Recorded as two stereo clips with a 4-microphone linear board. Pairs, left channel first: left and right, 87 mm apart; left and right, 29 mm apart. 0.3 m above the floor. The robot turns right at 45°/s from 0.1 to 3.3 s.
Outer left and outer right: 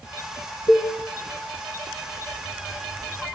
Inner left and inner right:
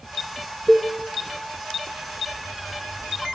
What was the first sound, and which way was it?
A cowbell, 65° left (ahead or behind).